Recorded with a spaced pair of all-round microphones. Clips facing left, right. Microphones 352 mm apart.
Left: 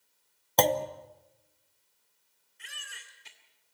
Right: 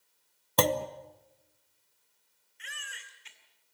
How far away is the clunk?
About 0.7 m.